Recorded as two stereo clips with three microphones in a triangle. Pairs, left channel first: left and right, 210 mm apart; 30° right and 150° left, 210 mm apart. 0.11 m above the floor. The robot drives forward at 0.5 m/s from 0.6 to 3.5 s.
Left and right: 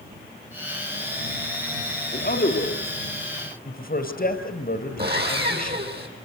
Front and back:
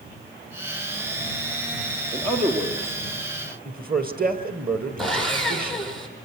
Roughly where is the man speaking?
Left.